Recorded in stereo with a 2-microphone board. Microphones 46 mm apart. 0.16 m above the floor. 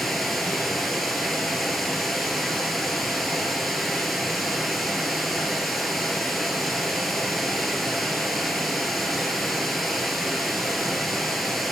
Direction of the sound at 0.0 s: 5° left (ahead or behind).